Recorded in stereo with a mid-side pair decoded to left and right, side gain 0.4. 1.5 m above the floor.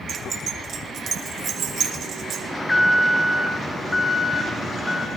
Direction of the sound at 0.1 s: 55° right.